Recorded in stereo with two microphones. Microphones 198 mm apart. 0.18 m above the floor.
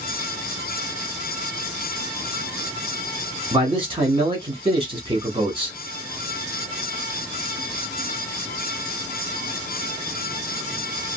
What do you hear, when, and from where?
3.5 s a man speaking: 25° right (ahead or behind), 1.2 m